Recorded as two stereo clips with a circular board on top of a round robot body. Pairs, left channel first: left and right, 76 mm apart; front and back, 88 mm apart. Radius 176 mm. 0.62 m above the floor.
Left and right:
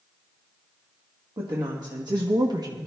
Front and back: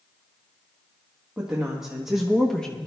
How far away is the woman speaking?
About 1.6 m.